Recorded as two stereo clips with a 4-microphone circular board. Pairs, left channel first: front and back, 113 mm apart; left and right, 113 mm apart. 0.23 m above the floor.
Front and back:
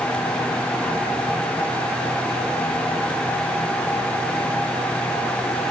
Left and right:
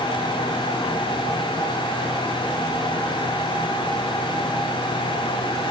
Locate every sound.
Only background noise.